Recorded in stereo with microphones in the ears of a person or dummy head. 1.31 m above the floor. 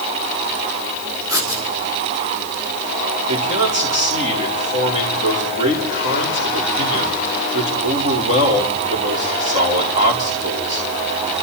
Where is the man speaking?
35° right (ahead or behind), 5 m.